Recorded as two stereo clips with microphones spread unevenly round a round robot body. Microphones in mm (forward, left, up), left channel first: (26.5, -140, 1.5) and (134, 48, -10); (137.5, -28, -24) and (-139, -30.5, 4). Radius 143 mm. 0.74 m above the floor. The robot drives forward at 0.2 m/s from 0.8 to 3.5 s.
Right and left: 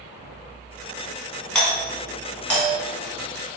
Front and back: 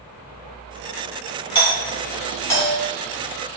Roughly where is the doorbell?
Ahead right.